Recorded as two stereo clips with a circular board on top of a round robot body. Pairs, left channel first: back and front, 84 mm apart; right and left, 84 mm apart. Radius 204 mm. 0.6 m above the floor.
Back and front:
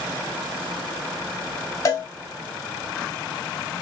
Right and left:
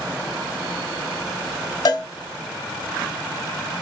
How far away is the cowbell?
About 0.9 m.